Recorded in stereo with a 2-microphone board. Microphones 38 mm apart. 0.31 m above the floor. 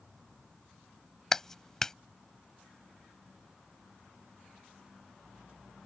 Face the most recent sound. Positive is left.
turn(degrees=15)  # may be behind; listen again after turning